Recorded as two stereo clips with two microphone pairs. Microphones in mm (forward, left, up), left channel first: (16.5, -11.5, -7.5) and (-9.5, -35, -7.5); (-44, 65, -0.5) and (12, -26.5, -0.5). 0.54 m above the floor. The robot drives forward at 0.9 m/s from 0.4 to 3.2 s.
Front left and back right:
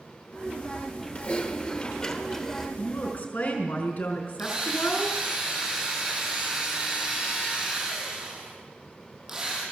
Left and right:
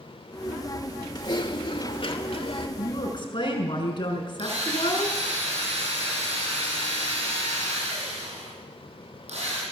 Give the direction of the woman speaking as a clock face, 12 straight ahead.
9 o'clock.